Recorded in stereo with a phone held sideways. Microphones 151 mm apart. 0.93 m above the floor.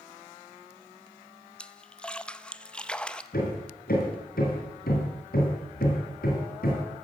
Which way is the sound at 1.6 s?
5° left (ahead or behind).